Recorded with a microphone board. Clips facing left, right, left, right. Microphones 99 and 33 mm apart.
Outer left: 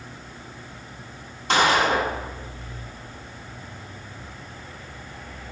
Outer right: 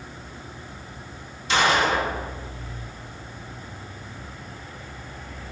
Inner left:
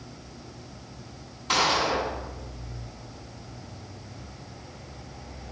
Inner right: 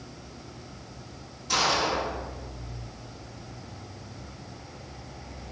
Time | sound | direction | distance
1.5 | a gunshot | 55° left (ahead or behind) | 3 m